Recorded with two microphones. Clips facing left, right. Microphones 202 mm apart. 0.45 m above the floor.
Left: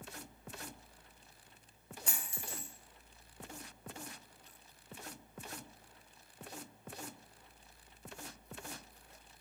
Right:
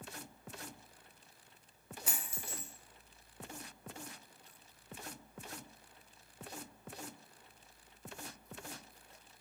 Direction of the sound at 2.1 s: 5° right (ahead or behind).